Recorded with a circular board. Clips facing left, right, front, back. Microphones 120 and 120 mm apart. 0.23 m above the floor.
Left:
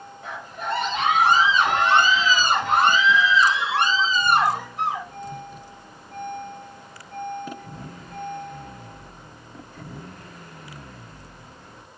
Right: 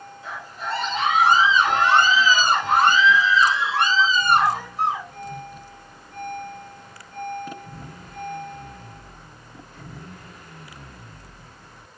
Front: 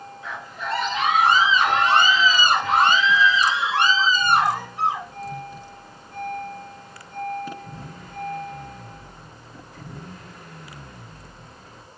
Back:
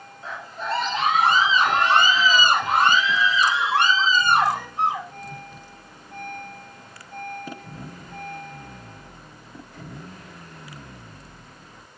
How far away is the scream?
About 3.5 m.